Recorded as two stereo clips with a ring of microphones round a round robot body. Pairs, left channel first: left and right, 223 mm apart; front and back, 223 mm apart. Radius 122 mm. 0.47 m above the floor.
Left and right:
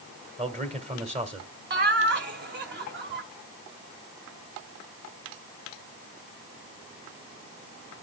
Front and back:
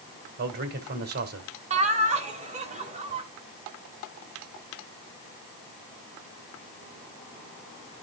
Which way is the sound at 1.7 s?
125° right.